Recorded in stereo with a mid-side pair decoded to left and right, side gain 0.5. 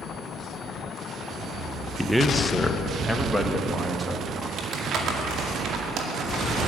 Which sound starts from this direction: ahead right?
Crumpling, at 4.6 s.